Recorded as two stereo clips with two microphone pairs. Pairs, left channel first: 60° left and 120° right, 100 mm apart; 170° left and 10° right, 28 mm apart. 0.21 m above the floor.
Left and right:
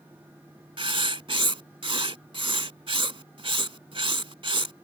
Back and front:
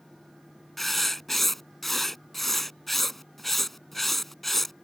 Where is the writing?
105° right.